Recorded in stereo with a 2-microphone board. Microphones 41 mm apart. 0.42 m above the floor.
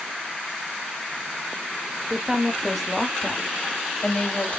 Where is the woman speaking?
25° right (ahead or behind), 1.2 m; by 4.6 s 40° left (ahead or behind), 1.8 m.